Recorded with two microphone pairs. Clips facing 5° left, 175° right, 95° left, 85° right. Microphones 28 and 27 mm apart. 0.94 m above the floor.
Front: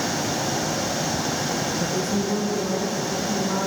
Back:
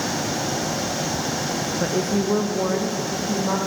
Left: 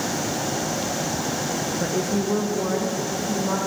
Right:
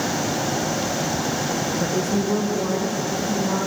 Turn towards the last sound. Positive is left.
turn(degrees=175)